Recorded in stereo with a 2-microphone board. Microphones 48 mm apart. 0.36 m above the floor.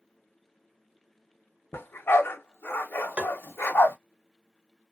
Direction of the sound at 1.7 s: 60° left (ahead or behind).